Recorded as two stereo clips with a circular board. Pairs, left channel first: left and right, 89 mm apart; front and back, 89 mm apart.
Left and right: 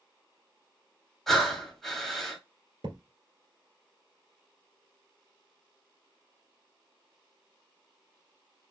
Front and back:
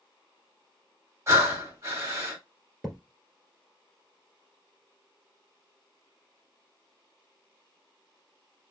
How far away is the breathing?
About 1.3 m.